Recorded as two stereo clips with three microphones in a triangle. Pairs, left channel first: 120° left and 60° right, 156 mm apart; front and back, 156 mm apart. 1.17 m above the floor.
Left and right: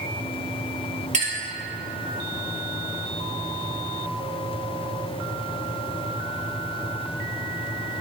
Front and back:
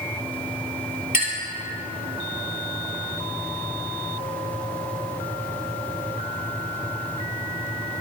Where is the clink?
25° right, 2.5 m.